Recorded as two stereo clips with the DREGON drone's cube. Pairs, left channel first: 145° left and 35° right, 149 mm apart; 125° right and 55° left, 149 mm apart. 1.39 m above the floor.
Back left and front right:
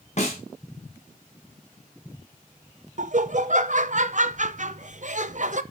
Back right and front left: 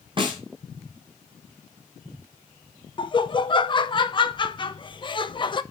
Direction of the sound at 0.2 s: 110° left.